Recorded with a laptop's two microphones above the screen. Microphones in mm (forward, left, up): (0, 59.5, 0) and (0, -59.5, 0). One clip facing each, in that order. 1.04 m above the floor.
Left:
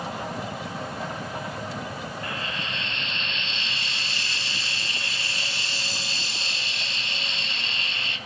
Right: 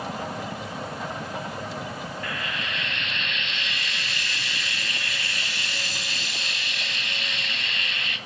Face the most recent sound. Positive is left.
turn(degrees=30)  # may be behind; listen again after turning